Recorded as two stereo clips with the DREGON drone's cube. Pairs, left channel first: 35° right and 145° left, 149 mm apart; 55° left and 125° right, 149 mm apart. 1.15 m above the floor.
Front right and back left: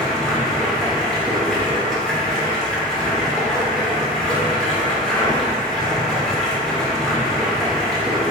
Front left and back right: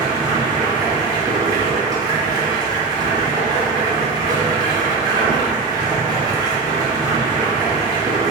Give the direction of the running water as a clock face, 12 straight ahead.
4 o'clock.